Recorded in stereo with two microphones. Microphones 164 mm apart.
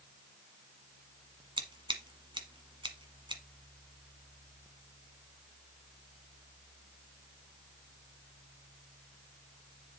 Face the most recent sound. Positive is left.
turn(degrees=-30)  # may be behind; listen again after turning